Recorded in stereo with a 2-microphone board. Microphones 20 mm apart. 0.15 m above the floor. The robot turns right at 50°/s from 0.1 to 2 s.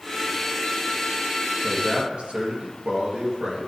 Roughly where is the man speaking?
Right.